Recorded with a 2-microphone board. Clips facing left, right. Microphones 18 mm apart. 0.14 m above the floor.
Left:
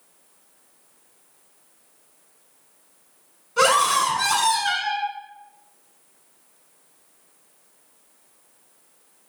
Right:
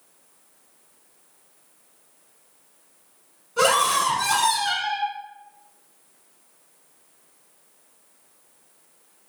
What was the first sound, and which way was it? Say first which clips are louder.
A scream: left 2 dB; 20° left (ahead or behind).